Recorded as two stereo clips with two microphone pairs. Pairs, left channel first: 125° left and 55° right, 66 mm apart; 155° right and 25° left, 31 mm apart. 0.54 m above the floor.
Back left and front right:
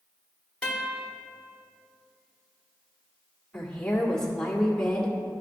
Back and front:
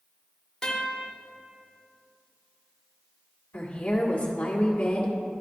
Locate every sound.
0.6 s a guitar: 175° left, 1.4 m
3.5 s a woman speaking: 155° right, 1.7 m